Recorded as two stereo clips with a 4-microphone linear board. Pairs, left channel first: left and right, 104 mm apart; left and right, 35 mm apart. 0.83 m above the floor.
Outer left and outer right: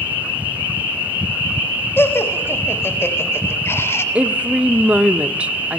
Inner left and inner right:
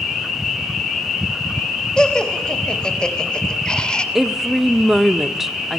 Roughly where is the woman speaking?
Centre.